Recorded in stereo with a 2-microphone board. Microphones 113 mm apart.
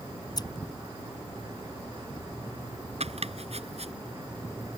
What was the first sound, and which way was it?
Scissors, 35° left (ahead or behind).